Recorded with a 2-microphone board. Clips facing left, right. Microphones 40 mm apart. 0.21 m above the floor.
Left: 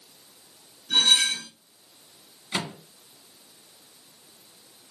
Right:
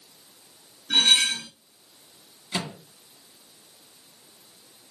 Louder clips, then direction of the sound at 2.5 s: Left 1 dB; 20° left (ahead or behind).